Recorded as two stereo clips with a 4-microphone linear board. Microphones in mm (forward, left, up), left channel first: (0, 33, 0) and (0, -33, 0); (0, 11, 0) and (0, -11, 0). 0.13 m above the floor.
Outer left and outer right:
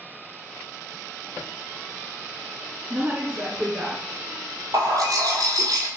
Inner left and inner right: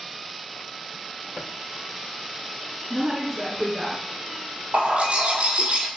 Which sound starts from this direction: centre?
A woman speaking, at 2.9 s.